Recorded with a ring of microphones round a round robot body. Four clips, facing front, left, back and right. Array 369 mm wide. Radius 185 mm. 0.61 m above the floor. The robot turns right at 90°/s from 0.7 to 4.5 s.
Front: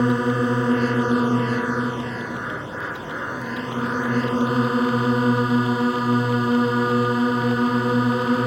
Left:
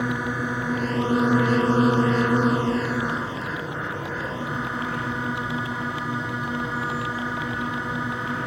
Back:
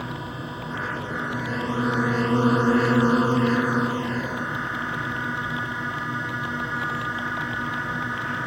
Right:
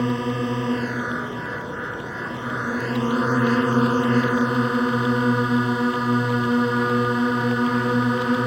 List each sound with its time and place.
0.0 s a drone: 15° right; by 8.5 s 30° right